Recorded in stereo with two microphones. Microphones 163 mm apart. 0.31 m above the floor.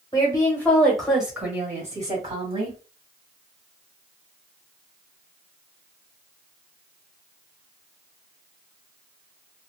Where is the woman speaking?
25° left (ahead or behind), 1.2 m; by 2.8 s 30° right (ahead or behind), 1.7 m.